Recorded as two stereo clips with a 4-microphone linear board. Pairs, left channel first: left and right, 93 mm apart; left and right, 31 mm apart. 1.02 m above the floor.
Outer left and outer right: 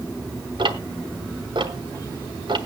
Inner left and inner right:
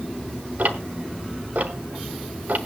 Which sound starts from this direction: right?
Ticking, at 0.6 s.